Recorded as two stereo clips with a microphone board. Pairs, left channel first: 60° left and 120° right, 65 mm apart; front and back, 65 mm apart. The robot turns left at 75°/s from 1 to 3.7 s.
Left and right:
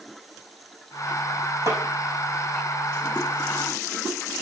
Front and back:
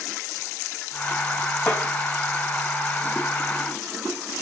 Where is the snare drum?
85° right, 5 m; by 1.8 s 95° right, 5 m.